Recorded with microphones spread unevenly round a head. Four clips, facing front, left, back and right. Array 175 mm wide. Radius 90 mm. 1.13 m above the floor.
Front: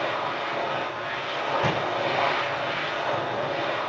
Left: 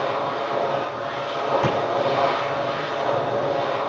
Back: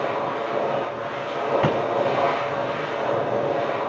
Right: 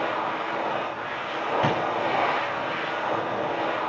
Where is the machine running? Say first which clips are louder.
Left 3 dB, back 3 dB; 150° left, 9 m.